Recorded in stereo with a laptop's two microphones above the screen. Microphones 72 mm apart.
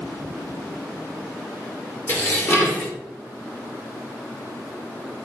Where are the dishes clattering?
30° left (ahead or behind), 1.7 m.